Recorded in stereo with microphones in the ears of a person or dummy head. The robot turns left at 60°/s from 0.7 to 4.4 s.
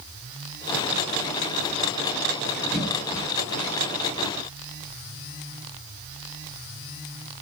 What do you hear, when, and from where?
2.7 s a cough: 5° right (ahead or behind), 2 m; by 3.2 s 30° left (ahead or behind), 2 m